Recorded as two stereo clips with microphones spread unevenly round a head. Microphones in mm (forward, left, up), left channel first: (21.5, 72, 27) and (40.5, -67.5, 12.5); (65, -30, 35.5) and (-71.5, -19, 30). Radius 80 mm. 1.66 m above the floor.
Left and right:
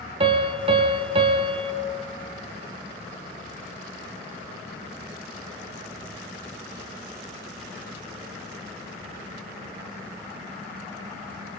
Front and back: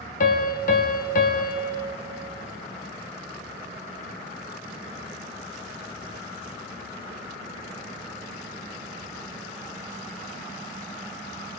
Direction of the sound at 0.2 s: 30° right.